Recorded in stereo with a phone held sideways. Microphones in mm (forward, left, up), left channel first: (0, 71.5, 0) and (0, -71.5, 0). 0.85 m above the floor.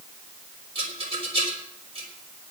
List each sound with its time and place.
0.8 s a rattle: 40° right (ahead or behind), 3.5 m